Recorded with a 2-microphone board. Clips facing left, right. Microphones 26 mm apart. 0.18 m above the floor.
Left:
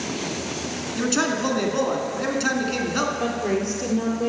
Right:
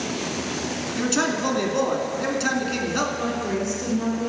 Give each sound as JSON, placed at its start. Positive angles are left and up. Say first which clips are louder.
{"t": 0.9, "sound": "a man speaking", "louder": "left 1 dB", "side_deg": 5, "distance_m": 2.0}
{"t": 3.2, "sound": "a woman speaking", "louder": "left 1 dB", "side_deg": 35, "distance_m": 4.0}